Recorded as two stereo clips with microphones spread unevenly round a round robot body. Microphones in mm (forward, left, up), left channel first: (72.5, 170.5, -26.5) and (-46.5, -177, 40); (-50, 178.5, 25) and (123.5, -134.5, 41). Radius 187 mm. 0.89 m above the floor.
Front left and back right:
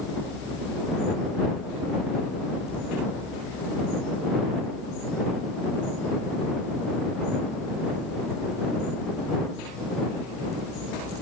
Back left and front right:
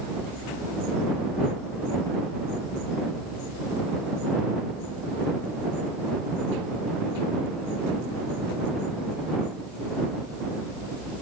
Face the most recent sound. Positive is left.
No sound to turn to.